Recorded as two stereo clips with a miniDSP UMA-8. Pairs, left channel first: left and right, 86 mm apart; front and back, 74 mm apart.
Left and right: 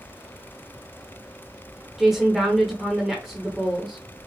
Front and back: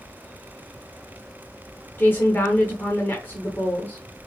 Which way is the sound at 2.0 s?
5° right.